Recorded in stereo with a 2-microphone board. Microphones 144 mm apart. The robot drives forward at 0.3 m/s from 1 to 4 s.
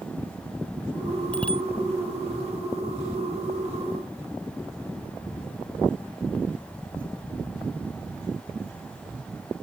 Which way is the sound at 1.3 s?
10° left (ahead or behind).